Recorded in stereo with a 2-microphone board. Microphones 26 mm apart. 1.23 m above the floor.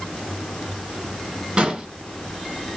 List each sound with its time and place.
1.6 s an explosion: 40° right (ahead or behind), 1.6 m